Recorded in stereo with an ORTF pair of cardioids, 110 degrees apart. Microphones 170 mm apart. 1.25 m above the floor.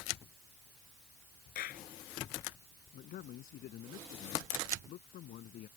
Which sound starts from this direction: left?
A clap, at 1.6 s.